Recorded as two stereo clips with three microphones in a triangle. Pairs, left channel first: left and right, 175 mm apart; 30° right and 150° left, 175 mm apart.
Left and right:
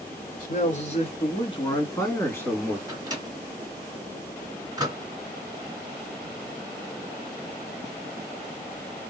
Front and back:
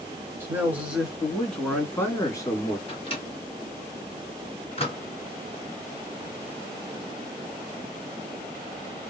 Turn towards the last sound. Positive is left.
turn(degrees=-40)